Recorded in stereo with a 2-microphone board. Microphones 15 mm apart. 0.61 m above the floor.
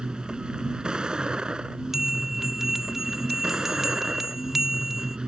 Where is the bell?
25° right (ahead or behind).